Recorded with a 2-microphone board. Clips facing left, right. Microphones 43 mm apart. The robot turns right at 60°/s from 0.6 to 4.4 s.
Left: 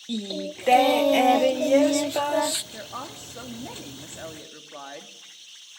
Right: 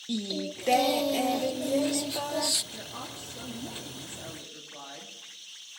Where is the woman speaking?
35° left, 3 m; by 5.1 s 135° left, 3 m.